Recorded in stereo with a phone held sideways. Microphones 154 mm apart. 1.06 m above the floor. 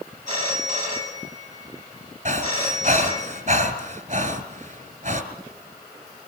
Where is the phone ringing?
50° right (ahead or behind), 5 m.